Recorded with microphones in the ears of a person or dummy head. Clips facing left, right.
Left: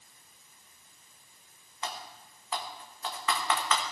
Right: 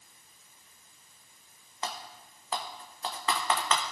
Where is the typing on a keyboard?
30° right (ahead or behind), 0.9 m.